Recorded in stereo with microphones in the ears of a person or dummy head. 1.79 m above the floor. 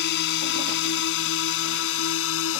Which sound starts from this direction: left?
A drone, at 0.0 s.